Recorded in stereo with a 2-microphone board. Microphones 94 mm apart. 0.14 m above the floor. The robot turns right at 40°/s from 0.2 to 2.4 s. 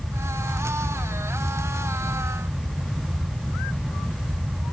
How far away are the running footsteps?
I don't hear running footsteps.